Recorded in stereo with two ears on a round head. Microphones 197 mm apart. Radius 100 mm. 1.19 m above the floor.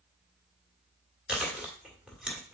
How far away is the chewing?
About 1.6 m.